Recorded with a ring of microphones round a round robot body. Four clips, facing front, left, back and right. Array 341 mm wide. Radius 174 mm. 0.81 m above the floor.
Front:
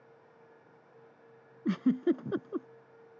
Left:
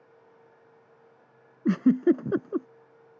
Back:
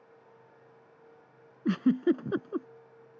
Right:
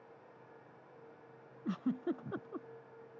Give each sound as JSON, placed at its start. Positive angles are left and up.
{"t": 1.6, "sound": "a giggle", "azimuth_deg": 100}